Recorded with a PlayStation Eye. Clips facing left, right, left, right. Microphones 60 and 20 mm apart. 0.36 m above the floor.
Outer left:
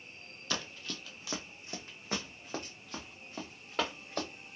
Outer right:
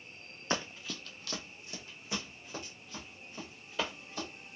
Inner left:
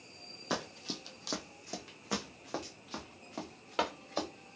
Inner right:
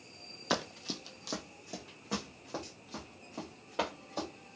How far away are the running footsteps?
About 0.5 m.